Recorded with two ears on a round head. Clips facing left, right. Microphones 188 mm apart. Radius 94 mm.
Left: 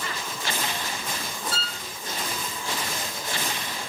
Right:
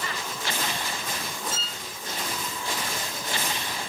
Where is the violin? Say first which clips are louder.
Left 2 dB; 15° right (ahead or behind), 1.0 m.